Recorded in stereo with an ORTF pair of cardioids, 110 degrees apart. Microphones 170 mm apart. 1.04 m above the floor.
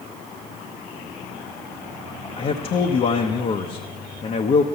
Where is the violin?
No violin in this recording.